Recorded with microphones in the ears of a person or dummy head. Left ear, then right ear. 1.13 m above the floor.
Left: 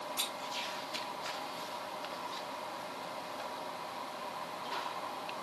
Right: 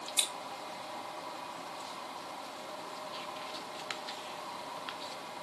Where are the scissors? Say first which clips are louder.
Right 5 dB; 85° right, 5.5 m.